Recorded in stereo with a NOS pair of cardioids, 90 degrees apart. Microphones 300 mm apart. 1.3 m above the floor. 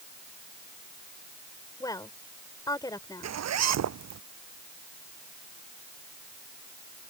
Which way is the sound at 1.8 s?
10° left.